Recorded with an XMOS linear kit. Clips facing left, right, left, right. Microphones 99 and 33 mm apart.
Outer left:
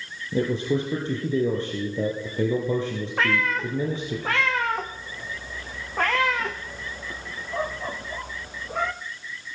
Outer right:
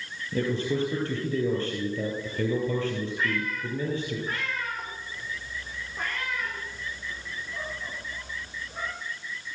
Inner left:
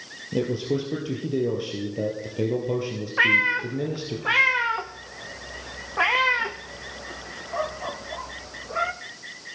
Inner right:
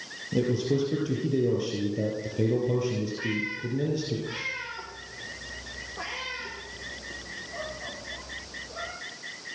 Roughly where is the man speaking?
Centre.